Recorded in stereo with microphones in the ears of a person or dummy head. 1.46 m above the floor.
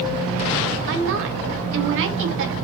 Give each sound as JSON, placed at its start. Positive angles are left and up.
{"t": 0.9, "sound": "a woman speaking", "side_deg": -70, "distance_m": 1.5}